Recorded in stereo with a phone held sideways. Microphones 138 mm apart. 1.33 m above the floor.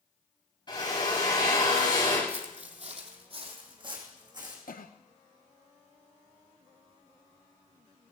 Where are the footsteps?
55° right (ahead or behind), 2 m; by 4.6 s 30° right (ahead or behind), 4.5 m.